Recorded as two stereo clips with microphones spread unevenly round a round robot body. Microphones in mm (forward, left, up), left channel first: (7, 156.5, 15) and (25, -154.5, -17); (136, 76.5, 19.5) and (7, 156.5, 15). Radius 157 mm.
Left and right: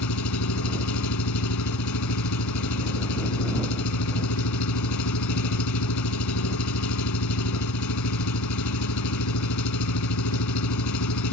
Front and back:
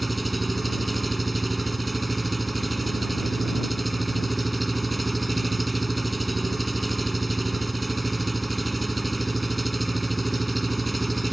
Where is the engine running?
60° left.